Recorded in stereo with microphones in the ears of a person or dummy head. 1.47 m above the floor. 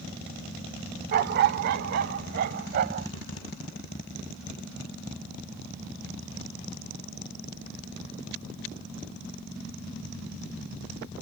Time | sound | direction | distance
1.1 | a dog barking | 50° right (ahead or behind) | ?